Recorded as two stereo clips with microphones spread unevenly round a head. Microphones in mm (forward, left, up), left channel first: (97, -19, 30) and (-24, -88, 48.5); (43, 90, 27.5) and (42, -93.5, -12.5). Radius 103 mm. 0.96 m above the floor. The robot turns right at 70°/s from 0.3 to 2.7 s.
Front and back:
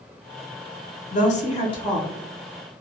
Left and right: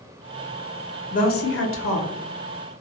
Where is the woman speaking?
35° left, 0.7 m; by 2.1 s 105° left, 0.7 m.